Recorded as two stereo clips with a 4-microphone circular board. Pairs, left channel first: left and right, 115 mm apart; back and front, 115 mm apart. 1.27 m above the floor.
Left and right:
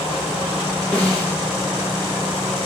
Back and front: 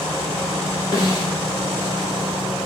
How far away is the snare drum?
About 1.0 m.